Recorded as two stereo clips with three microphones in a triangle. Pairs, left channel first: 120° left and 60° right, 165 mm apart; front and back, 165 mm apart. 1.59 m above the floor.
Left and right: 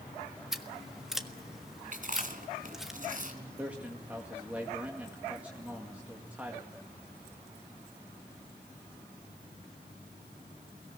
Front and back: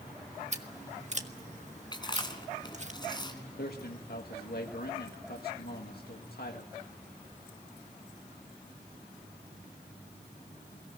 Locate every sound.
0.5 s scissors: 145° right, 1.5 m
1.9 s chewing: 55° right, 2.5 m
3.6 s a man speaking: 20° left, 2 m